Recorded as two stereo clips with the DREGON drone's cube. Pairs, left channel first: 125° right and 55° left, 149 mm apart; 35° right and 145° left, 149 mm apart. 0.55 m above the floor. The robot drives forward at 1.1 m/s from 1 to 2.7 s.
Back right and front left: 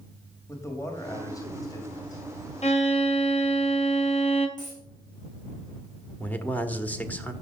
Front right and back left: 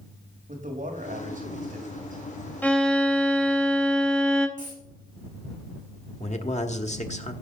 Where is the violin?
110° right, 1.4 m; by 4.5 s 115° right, 1.5 m.